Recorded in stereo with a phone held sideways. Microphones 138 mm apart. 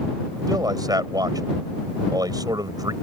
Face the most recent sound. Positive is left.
turn(degrees=-30)  # may be behind; listen again after turning